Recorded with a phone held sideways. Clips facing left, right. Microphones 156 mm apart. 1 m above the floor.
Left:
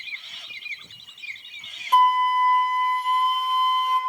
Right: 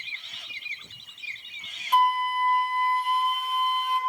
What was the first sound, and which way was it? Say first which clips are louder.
A flute: left 4 dB; 45° left (ahead or behind).